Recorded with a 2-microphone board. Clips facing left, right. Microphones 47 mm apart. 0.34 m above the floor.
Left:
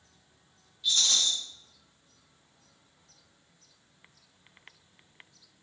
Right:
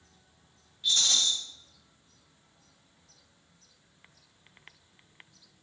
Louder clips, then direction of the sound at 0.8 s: Even; 45° right (ahead or behind).